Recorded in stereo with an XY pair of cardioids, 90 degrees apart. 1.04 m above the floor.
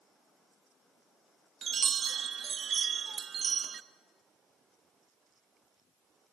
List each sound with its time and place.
1.6 s a chime: 55° right, 0.7 m